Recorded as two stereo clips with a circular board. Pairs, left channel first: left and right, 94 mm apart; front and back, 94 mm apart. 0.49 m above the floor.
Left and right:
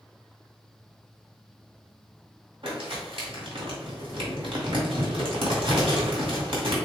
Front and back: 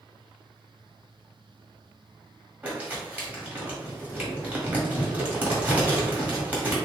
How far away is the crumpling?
About 1.4 m.